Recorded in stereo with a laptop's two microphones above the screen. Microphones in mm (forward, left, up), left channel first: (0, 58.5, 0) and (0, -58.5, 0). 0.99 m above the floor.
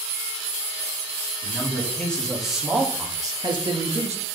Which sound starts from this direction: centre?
A man speaking, at 1.4 s.